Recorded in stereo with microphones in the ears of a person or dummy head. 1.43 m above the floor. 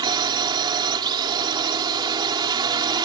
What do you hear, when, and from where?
0.0 s a drone: 25° right (ahead or behind)